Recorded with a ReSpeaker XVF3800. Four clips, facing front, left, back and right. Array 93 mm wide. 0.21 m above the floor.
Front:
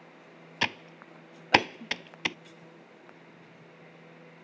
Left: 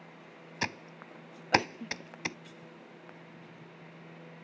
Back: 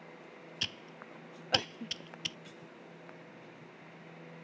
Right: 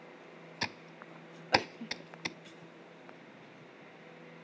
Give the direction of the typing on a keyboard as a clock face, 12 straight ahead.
12 o'clock.